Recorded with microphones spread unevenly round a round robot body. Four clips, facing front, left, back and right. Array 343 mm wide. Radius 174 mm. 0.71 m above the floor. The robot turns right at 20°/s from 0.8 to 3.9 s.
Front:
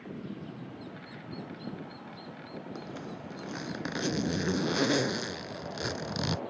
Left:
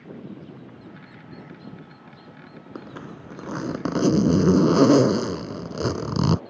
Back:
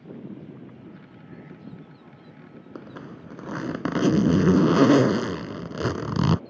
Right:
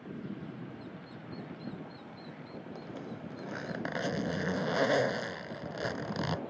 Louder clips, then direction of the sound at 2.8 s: Left 7 dB, back 1 dB; 105° left.